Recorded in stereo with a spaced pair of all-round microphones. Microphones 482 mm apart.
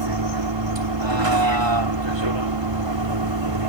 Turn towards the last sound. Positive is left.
turn(degrees=-65)  # may be behind; listen again after turning